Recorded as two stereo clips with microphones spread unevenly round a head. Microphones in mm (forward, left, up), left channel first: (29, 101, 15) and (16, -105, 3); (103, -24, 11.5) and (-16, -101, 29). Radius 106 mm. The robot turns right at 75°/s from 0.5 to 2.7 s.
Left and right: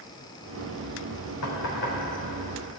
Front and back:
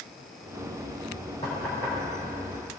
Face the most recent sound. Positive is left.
turn(degrees=-160)